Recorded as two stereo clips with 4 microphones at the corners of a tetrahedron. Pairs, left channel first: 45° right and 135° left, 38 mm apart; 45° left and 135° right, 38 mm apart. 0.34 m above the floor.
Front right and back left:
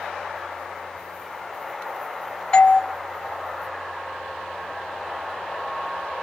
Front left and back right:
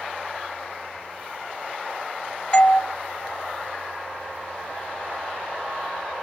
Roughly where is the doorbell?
Ahead.